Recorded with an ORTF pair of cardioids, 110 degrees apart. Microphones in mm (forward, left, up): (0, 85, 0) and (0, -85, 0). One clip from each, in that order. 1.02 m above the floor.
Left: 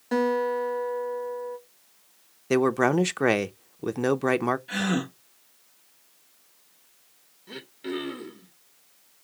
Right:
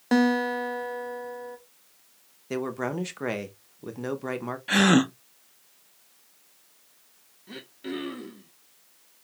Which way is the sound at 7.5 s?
10° left.